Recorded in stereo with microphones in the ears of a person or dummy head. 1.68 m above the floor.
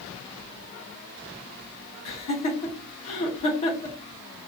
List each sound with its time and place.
2.0 s laughter: 35° left (ahead or behind), 0.8 m